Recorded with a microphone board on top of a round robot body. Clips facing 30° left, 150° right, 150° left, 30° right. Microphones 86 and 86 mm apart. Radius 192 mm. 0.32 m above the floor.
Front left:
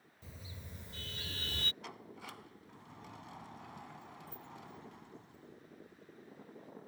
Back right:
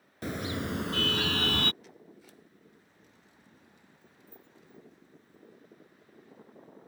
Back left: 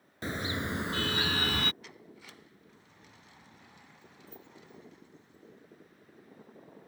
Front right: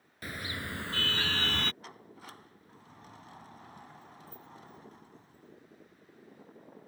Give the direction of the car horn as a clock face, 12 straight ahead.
5 o'clock.